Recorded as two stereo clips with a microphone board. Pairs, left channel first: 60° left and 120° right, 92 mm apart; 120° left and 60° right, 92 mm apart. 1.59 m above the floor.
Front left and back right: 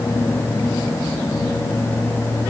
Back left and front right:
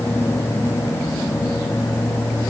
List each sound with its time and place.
Only background noise.